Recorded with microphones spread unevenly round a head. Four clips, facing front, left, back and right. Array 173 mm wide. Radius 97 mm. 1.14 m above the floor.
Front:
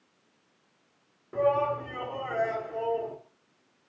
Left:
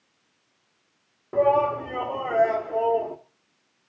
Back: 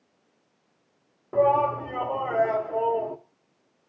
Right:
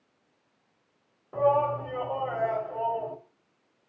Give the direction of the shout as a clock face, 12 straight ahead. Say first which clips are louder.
Left 4 dB, back 5 dB; 8 o'clock.